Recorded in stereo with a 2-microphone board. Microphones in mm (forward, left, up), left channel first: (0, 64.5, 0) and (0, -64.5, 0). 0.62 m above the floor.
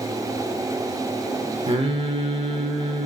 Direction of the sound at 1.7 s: 50° right (ahead or behind).